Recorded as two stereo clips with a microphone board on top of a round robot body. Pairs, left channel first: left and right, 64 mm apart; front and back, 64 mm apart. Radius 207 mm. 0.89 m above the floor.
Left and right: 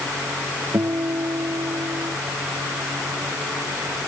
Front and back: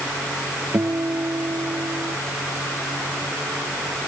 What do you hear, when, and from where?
0.7 s a guitar: 130° right